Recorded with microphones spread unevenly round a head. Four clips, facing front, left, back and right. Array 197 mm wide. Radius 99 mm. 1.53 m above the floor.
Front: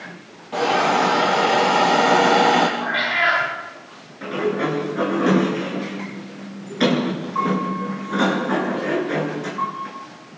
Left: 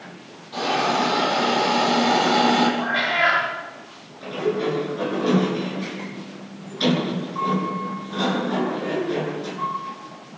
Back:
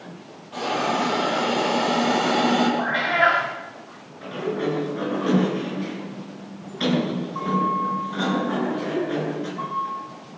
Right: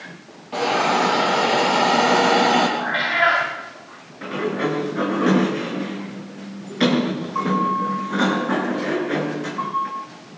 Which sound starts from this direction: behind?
A cat meowing, at 2.8 s.